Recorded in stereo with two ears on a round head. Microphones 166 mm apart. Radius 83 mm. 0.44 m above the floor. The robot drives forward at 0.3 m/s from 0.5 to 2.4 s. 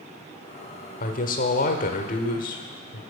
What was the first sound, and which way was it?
A woman speaking, 45° left (ahead or behind).